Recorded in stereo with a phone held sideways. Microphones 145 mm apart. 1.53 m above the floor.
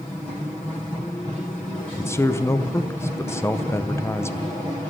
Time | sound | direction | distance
2.0 | a man speaking | 20° left (ahead or behind) | 0.6 m